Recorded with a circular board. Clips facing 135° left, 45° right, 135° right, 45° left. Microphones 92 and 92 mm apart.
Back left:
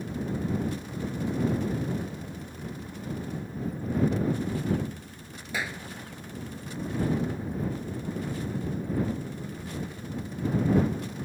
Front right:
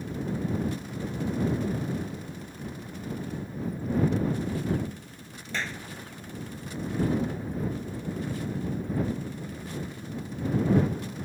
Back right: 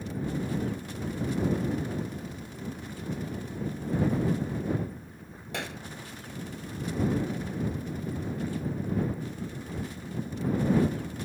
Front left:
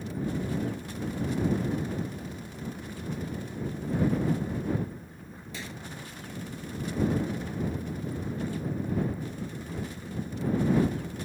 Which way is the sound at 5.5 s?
145° right.